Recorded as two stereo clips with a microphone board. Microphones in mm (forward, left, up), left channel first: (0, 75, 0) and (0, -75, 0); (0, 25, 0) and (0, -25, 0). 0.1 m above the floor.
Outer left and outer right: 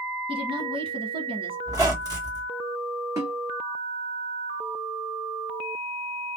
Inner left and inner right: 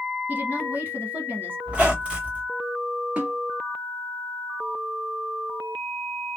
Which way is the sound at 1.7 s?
25° right (ahead or behind).